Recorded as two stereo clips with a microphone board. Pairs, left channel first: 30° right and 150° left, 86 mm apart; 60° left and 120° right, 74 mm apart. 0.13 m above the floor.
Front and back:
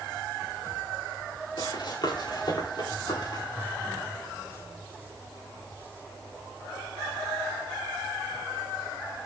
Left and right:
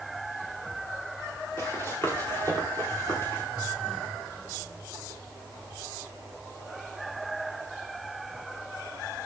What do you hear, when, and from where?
1.6 s running footsteps: straight ahead, 6.5 m